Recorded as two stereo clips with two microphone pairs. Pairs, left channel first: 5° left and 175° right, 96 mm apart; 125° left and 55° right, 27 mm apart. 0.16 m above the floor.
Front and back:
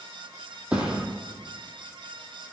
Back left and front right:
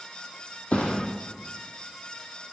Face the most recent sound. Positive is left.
turn(degrees=105)